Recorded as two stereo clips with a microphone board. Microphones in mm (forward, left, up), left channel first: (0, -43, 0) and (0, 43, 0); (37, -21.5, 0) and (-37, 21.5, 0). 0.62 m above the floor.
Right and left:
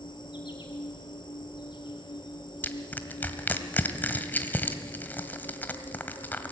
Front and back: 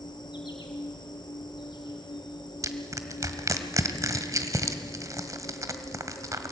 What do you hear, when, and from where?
0.0 s an insect: 65° right, 3.5 m
2.6 s crushing: 160° right, 1.3 m